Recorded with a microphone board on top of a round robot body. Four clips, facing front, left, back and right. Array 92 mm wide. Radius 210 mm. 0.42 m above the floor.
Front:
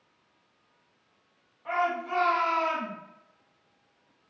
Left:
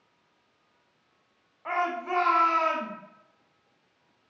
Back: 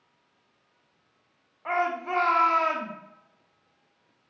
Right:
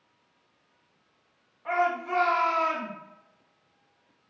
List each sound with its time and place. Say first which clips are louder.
1.6 s a shout: right 2 dB, back 1 dB; 145° left, 1.3 m